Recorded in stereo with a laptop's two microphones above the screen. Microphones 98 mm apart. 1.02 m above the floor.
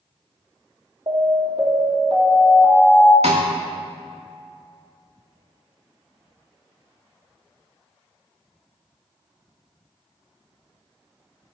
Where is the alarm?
65° right (ahead or behind), 3 m.